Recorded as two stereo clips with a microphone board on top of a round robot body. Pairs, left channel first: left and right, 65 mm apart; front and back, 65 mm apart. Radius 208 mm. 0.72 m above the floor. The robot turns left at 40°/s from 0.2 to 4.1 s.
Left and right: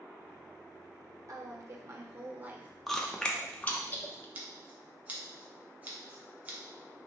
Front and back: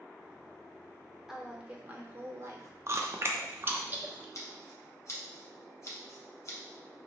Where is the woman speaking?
95° right, 1.0 m; by 2.7 s 155° right, 1.0 m.